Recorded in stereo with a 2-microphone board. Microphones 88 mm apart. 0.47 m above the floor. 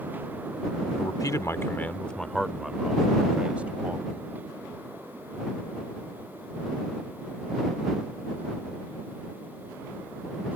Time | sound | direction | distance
1.0 | a man speaking | 50° left (ahead or behind) | ?